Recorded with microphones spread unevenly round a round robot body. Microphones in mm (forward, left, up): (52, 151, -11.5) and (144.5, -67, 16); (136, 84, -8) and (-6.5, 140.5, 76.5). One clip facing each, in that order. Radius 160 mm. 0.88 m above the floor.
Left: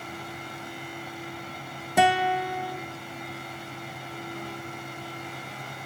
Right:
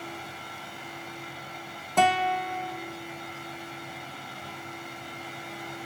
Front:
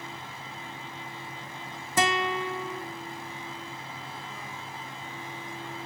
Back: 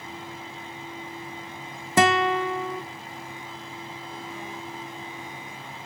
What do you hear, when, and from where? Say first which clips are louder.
2.0 s a guitar: left 2 dB, back 6 dB; 165° left, 0.5 m